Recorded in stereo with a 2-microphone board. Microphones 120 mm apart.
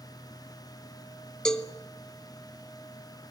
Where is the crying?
No crying in this recording.